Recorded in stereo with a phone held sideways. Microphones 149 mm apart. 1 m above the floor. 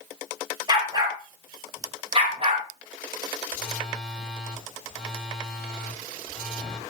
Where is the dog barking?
30° right (ahead or behind), 6 m; by 2.6 s 45° right (ahead or behind), 4.5 m.